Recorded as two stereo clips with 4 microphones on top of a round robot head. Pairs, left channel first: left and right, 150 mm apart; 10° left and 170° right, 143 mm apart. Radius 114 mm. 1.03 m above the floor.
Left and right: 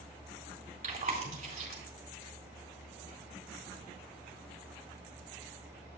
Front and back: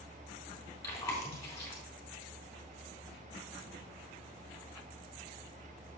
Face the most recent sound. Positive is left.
turn(degrees=-60)